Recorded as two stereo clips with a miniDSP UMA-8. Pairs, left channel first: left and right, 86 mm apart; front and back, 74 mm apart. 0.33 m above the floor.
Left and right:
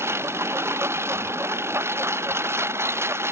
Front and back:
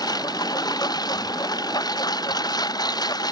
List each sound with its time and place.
0.0 s a lawn mower: 30° right